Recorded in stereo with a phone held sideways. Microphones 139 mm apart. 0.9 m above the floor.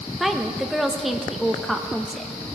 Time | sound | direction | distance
0.2 | a woman speaking | centre (ahead or behind) | 0.7 m